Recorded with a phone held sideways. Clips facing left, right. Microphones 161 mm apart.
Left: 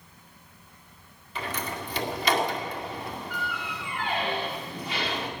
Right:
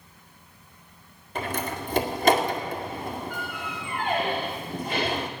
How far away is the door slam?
About 1.8 m.